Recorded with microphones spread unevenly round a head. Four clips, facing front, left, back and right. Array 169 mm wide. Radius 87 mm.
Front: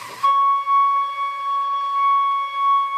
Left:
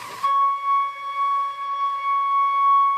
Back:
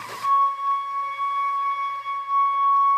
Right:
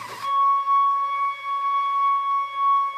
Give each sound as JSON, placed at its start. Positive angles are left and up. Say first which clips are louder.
{"t": 0.2, "sound": "a flute", "louder": "even, front 4 dB", "azimuth_deg": 5, "distance_m": 0.7}